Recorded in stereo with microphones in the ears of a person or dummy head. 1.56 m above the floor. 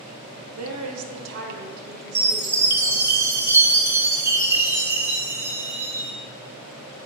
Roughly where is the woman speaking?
Right.